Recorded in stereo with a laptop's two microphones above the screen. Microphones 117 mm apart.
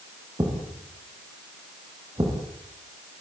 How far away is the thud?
About 10 m.